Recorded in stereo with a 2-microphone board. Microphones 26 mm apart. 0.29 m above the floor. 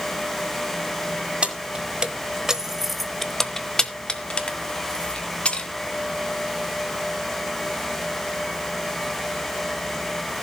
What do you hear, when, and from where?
1.4 s keys jangling: 40° right (ahead or behind), 1.5 m; by 5.7 s 40° left (ahead or behind), 2.5 m